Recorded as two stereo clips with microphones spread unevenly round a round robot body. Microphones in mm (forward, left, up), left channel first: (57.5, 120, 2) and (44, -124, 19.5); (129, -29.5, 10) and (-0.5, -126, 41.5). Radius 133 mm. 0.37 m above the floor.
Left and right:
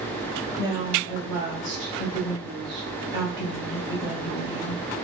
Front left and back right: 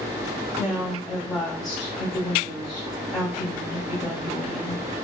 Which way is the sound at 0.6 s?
35° right.